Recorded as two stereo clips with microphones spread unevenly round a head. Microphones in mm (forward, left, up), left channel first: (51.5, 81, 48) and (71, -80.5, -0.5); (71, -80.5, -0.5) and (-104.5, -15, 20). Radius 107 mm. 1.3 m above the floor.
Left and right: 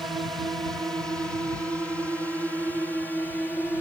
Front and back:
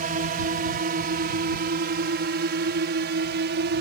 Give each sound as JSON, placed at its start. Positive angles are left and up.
{"t": 0.0, "sound": "a drone", "azimuth_deg": -165}